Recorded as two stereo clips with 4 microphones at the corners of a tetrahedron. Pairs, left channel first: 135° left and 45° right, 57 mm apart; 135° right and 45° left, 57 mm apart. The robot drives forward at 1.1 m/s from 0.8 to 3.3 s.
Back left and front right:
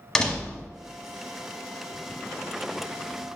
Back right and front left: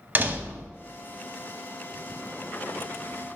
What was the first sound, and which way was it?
A door slam, 65° left.